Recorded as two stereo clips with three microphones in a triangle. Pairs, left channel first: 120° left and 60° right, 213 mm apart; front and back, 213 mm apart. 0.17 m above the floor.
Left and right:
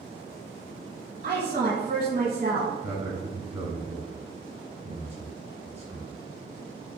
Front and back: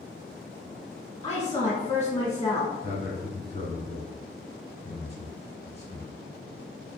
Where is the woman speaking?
60° right, 1.4 m.